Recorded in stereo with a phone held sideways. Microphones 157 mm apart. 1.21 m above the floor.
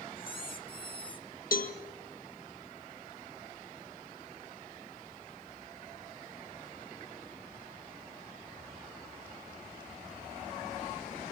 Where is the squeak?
35° left (ahead or behind), 2.5 m.